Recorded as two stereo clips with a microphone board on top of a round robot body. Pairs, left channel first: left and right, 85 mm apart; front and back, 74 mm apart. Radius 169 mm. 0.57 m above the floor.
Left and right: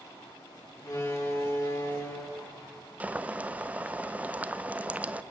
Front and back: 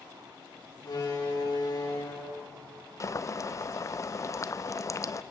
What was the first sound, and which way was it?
A door slam, 35° left.